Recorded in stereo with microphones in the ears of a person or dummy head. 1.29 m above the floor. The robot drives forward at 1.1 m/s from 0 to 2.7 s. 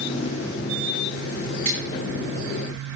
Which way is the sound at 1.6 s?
30° right (ahead or behind).